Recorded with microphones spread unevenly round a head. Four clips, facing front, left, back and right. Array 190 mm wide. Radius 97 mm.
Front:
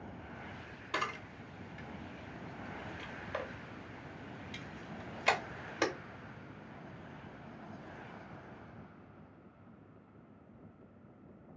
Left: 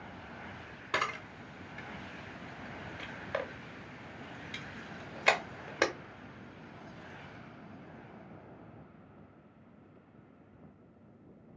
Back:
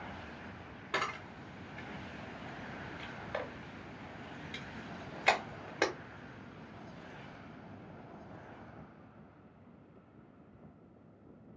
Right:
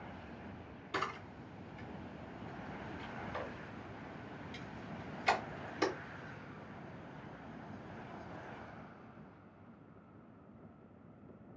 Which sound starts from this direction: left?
A camera shutter, at 0.9 s.